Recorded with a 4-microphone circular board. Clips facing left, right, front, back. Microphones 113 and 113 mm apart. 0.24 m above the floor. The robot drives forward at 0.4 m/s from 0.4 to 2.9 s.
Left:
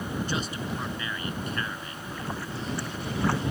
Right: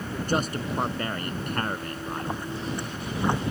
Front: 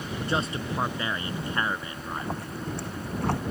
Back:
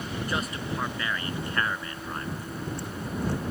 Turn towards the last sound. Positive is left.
turn(degrees=-20)